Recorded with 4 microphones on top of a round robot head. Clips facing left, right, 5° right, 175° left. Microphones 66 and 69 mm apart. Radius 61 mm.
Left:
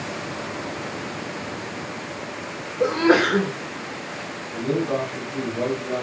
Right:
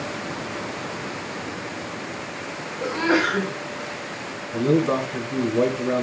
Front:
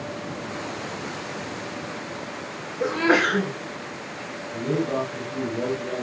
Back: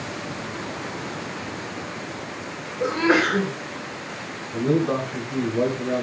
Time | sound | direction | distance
2.8 | a sneeze | 90° left | 2.5 m
4.5 | a man speaking | 135° right | 5.5 m